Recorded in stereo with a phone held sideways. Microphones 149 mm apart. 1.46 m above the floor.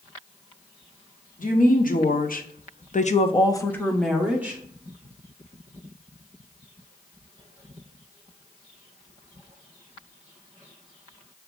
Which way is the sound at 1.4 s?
65° left (ahead or behind).